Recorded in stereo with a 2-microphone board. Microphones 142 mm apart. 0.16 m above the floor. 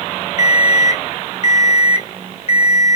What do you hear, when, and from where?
0.4 s an alarm clock: 45° left (ahead or behind), 0.6 m